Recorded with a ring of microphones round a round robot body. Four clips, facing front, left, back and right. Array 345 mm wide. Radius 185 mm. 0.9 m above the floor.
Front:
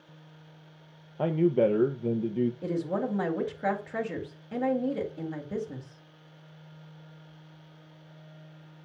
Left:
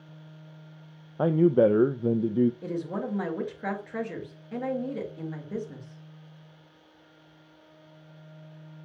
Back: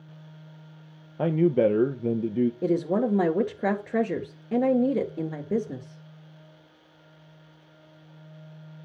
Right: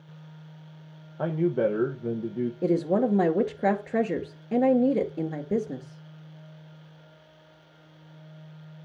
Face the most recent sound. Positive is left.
turn(degrees=-135)